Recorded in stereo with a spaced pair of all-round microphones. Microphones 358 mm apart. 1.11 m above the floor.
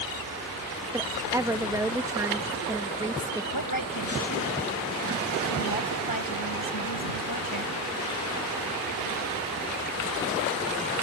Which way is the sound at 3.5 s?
70° left (ahead or behind).